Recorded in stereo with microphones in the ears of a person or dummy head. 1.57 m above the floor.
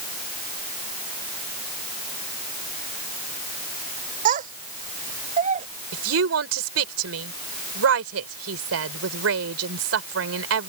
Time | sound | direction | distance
4.2 | a child speaking | 40° right (ahead or behind) | ?
5.9 | a woman speaking | 85° right | ?